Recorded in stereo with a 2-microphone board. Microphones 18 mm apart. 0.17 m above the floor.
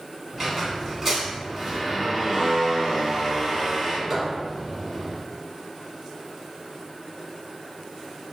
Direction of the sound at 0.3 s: 20° right (ahead or behind).